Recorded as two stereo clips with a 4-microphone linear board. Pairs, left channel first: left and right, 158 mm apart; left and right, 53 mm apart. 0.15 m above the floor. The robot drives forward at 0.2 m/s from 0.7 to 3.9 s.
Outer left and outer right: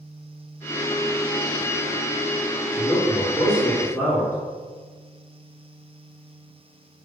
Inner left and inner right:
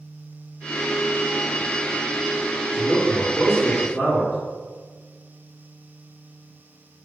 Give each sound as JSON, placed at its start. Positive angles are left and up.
{"t": 2.7, "sound": "a man speaking", "side_deg": 0, "distance_m": 1.3}